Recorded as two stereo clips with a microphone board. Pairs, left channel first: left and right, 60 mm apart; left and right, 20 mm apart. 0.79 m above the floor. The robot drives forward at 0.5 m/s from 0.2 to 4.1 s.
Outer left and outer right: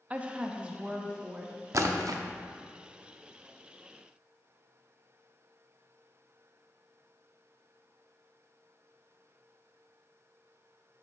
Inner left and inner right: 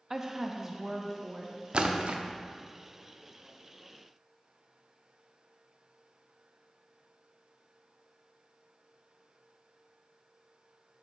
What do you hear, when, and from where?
0.1 s a woman speaking: 25° right (ahead or behind), 0.6 m; by 1.6 s 10° right (ahead or behind), 1.2 m
1.7 s a splash: 60° right (ahead or behind), 0.5 m; by 2.2 s 80° right, 0.5 m